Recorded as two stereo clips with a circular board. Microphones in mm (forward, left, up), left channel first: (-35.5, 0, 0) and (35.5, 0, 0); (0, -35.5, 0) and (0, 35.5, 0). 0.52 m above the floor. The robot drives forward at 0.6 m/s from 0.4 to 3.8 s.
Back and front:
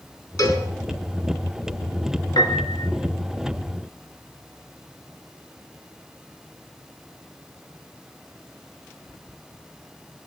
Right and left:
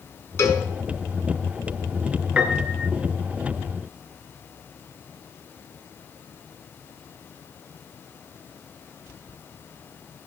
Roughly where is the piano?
Behind.